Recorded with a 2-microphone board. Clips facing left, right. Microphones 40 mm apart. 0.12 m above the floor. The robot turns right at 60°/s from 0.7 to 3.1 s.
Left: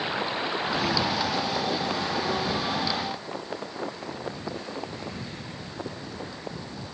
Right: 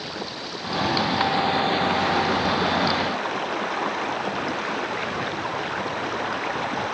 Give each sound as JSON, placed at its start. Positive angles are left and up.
{"t": 0.0, "sound": "running water", "azimuth_deg": 155}